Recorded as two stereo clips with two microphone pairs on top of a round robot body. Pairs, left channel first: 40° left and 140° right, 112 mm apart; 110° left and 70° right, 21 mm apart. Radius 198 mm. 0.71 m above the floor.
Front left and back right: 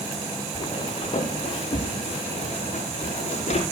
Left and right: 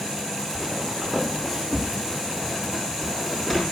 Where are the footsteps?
Straight ahead, 5 m; by 3.6 s 25° left, 8 m.